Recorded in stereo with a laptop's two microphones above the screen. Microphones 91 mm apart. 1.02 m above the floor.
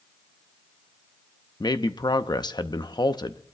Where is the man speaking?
50° left (ahead or behind), 0.7 m.